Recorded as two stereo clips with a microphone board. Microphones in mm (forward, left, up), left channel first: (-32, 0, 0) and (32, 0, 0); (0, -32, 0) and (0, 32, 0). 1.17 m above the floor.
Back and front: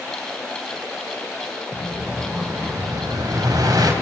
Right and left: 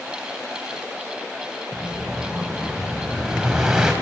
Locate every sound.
1.7 s an explosion: 10° left, 3.5 m